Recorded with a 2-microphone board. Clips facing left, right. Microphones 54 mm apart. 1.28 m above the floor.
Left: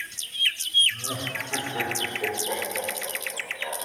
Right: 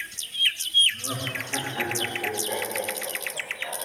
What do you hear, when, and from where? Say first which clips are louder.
0.9 s laughter: even; 75° left (ahead or behind), 5 m; by 3.8 s 80° left, 6.5 m